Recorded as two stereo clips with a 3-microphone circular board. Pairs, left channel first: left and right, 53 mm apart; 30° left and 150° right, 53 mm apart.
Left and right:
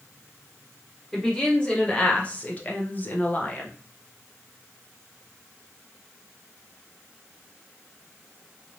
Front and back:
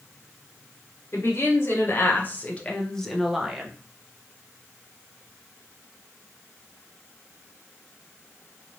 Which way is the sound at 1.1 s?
15° left.